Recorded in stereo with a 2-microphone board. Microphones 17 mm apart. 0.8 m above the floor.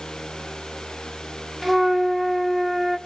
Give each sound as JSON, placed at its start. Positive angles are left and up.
{"t": 1.6, "sound": "a flute", "side_deg": -5, "distance_m": 1.2}